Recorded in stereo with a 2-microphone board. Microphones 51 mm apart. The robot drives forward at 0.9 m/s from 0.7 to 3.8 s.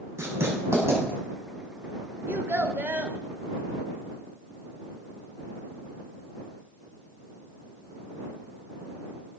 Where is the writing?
65° right (ahead or behind), 6.5 m; by 1.0 s 60° right (ahead or behind), 6.5 m.